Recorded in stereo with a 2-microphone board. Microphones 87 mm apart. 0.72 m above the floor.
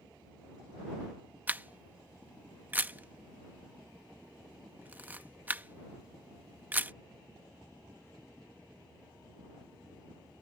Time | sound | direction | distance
1.5 | a camera shutter | 20° right (ahead or behind) | ?